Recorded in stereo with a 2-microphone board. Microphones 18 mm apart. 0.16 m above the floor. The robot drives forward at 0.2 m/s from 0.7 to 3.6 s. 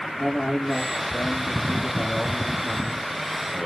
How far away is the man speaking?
About 3.5 m.